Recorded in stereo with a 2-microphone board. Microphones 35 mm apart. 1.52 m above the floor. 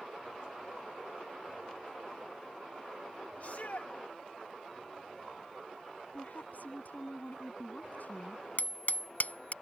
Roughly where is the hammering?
Left.